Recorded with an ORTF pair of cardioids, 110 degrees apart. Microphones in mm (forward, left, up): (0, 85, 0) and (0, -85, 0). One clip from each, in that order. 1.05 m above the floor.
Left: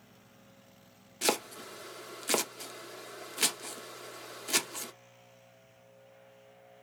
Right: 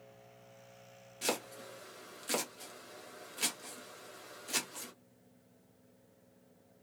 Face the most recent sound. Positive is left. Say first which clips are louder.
# left 6 dB
turn(degrees=35)